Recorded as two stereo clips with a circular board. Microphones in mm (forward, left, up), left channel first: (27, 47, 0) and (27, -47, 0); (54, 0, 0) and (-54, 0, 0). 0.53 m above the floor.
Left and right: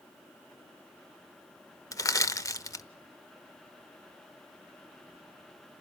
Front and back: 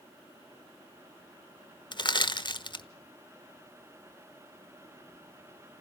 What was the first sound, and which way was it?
Crushing, 40° left.